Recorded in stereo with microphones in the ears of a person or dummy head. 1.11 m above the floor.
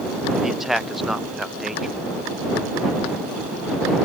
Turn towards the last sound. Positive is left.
turn(degrees=0)  # may be behind; listen again after turning